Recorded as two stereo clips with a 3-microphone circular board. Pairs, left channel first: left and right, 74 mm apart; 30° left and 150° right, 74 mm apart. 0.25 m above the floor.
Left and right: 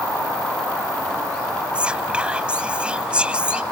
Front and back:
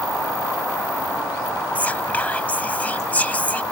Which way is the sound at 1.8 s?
25° right.